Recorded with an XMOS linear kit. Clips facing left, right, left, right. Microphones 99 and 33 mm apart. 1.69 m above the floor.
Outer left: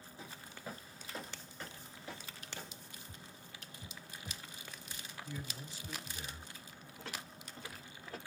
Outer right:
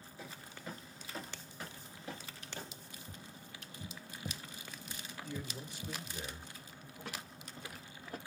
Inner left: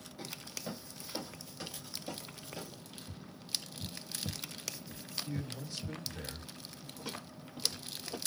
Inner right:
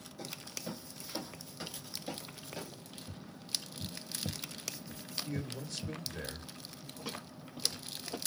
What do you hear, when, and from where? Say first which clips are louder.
0.2 s footsteps: outer right 1 dB, even; 20° left (ahead or behind), 1.7 m; by 2.8 s 35° right (ahead or behind), 1.9 m
3.1 s tapping: outer right 2 dB, even; 60° right (ahead or behind), 0.8 m
5.2 s a man speaking: outer right 3 dB, inner right 2 dB; 75° right (ahead or behind), 1.5 m
7.0 s footsteps: outer right 1 dB, inner right 1 dB; 10° right (ahead or behind), 1.9 m; by 8.2 s 15° right (ahead or behind), 1.7 m